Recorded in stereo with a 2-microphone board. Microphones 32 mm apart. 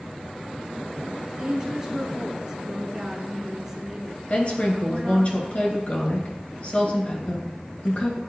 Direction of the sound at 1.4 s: 20° right (ahead or behind).